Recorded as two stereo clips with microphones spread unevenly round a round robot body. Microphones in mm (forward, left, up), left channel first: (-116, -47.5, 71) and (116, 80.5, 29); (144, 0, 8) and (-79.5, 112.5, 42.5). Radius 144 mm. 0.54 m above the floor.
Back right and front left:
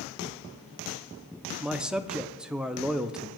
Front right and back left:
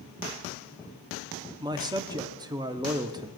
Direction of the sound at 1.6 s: 85° left.